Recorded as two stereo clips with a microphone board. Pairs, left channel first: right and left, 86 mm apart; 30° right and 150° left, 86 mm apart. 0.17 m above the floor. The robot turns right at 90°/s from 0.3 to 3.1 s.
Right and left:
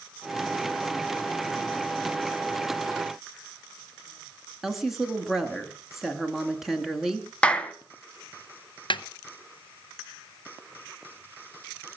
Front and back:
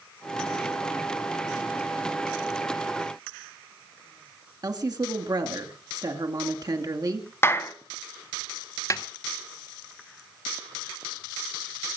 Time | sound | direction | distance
4.6 | a woman speaking | 175° left | 2 m
7.4 | a clap | 30° right | 1.2 m
8.9 | a snare drum | 80° right | 0.7 m